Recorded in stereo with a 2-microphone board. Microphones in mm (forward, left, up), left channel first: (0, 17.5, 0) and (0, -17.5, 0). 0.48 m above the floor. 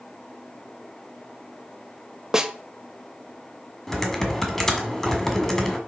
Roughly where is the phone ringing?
I don't hear a phone ringing.